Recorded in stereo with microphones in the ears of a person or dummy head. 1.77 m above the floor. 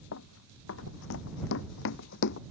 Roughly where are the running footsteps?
Left.